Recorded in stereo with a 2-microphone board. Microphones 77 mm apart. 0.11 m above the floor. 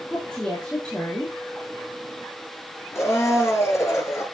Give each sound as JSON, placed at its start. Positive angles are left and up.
{"t": 0.1, "sound": "a woman speaking", "side_deg": 10, "distance_m": 3.5}
{"t": 3.0, "sound": "a blender", "side_deg": 35, "distance_m": 2.5}